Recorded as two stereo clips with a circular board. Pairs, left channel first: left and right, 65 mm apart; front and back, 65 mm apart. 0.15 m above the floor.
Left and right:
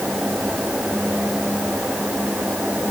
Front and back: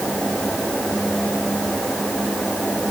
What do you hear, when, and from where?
Only background noise.